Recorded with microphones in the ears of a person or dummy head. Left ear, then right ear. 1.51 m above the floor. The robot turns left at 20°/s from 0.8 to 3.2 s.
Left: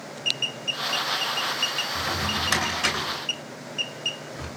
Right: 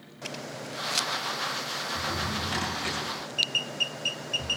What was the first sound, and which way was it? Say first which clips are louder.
A drawer: left 4 dB; 70° left (ahead or behind).